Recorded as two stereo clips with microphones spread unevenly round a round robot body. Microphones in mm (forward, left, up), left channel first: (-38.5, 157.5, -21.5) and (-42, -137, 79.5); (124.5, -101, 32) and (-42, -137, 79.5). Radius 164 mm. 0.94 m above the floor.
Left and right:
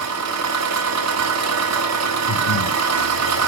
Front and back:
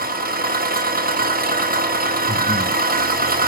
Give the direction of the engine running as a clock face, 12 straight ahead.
4 o'clock.